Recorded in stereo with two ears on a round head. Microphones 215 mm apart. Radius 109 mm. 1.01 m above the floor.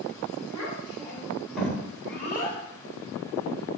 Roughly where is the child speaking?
Centre.